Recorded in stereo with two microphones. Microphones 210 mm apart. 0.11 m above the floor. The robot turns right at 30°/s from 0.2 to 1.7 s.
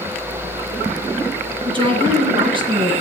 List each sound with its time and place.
1.6 s a woman speaking: 25° right (ahead or behind), 1.4 m